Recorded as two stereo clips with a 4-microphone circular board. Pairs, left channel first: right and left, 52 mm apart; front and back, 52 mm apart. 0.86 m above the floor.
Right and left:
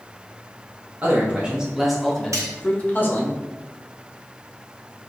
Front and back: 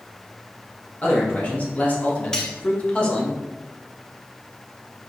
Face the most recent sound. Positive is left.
turn(degrees=75)